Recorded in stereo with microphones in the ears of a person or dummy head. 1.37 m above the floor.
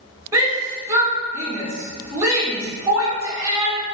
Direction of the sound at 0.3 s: 15° right (ahead or behind).